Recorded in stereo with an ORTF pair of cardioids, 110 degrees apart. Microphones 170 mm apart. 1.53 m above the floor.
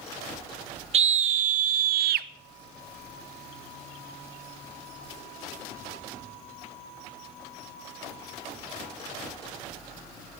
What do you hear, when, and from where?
0.9 s a scream: 40° right, 1.4 m; by 2.3 s 70° right, 1.0 m